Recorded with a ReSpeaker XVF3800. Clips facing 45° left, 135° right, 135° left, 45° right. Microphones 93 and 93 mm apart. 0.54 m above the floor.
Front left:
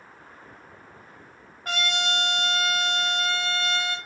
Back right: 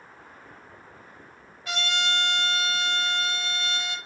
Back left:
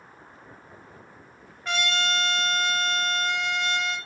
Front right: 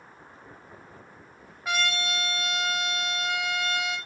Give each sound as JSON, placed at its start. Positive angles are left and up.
{"t": 1.6, "sound": "a trumpet", "azimuth_deg": 35, "distance_m": 1.0}